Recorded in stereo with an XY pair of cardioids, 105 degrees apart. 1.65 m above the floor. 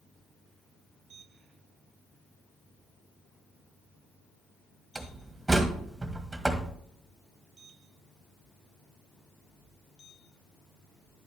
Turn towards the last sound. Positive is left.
turn(degrees=-20)